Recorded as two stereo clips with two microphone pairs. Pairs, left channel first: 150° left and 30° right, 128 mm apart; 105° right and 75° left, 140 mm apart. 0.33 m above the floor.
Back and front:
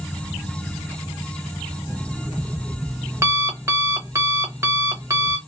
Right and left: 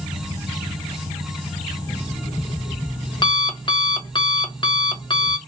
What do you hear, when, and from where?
1.9 s an alarm clock: 85° right, 0.8 m